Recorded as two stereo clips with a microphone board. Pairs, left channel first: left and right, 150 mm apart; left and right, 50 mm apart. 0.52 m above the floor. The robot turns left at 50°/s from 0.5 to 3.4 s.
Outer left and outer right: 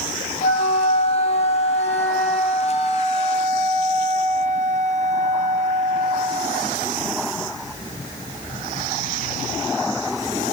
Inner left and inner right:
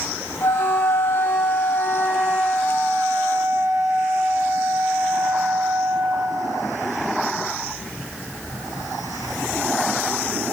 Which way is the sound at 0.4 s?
95° left.